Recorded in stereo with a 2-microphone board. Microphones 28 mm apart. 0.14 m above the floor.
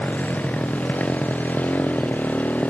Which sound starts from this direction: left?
A motorcycle, at 0.0 s.